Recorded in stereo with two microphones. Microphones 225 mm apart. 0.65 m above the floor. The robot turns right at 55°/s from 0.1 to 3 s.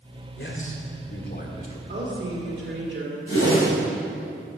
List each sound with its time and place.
0.4 s a man speaking: 70° left, 1.8 m; by 1.8 s 150° left, 1.8 m
1.9 s a woman speaking: 125° right, 2.5 m; by 3.2 s 60° right, 2.5 m
3.3 s a whoosh: 80° left, 3 m